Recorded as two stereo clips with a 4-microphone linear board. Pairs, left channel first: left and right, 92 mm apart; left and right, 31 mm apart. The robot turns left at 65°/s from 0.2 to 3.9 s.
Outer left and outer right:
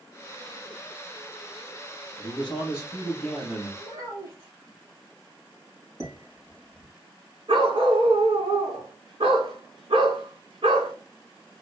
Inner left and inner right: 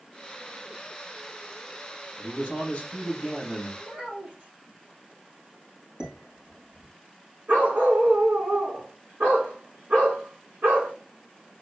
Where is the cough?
I don't hear a cough.